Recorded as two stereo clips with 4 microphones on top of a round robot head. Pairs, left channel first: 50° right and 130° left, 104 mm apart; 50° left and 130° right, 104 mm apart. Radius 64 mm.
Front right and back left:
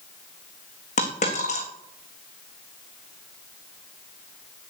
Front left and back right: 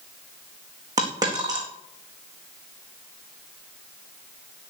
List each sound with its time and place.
1.0 s a dropped coin: 75° right, 4 m